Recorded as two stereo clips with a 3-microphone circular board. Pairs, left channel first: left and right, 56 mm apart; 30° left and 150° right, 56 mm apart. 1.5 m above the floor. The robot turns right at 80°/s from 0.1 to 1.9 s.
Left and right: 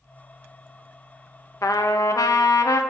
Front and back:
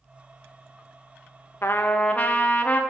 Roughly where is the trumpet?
Left.